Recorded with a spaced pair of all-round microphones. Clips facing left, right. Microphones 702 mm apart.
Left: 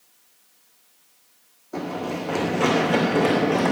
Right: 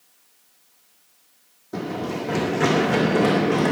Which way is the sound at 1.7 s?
50° right (ahead or behind).